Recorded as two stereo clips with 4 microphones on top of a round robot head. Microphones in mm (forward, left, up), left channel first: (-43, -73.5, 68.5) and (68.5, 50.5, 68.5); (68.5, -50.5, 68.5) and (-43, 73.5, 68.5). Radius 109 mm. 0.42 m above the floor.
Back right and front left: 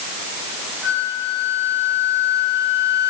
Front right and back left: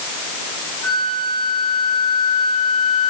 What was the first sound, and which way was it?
A flute, 125° left.